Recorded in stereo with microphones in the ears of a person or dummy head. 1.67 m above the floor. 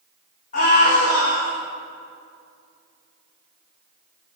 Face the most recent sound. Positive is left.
turn(degrees=50)  # may be behind; listen again after turning